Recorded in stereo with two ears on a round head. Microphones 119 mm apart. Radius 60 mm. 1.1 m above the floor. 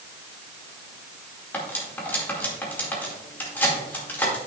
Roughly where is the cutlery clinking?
Centre.